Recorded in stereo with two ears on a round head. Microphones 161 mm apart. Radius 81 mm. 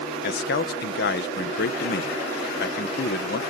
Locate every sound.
0.2 s a man speaking: 65° left (ahead or behind)